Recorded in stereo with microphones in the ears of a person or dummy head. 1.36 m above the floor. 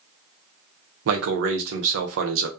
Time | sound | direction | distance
1.1 | a man speaking | 75° right (ahead or behind) | 0.8 m